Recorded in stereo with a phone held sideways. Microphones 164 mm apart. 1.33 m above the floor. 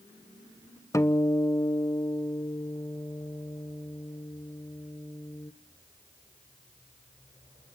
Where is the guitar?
20° left (ahead or behind), 0.7 m.